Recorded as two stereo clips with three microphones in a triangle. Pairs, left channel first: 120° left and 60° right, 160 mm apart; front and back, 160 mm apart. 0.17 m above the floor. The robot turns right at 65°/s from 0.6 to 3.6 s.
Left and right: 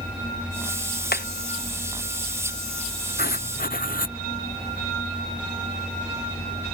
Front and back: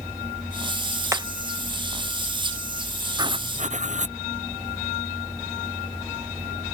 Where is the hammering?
110° left; by 1.3 s 115° left.